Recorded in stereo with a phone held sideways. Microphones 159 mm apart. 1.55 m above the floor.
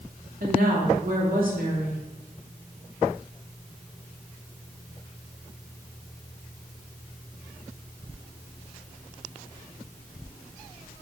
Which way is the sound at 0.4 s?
65° right (ahead or behind).